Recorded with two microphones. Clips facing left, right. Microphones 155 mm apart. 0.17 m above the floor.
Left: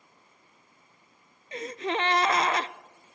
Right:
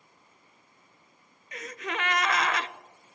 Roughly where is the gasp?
Left.